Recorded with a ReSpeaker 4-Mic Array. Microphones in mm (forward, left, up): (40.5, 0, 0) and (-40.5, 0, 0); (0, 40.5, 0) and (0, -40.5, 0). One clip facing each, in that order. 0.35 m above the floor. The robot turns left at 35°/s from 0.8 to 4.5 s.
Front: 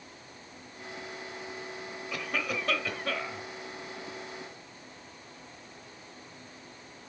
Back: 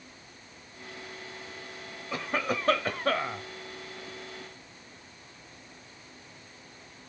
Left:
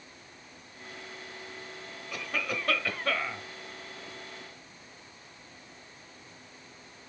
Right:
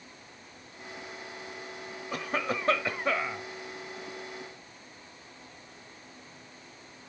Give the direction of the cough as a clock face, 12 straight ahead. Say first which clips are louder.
Back 4 dB, right 3 dB; 4 o'clock.